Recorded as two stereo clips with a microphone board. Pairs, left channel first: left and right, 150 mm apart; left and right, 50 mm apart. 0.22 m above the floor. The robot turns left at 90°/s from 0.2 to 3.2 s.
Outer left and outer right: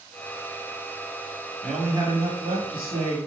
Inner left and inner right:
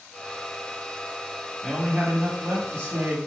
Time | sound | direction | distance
1.6 | a man speaking | 5° left | 4 m